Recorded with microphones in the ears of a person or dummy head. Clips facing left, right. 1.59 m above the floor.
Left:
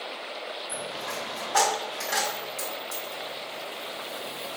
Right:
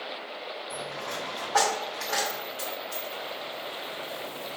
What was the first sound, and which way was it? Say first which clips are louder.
A dropped coin: even; 45° left (ahead or behind).